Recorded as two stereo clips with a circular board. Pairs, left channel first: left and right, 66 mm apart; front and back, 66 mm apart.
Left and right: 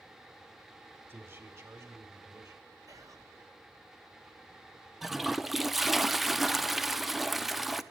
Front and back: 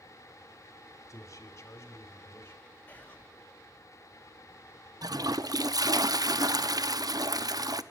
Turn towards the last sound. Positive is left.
turn(degrees=-175)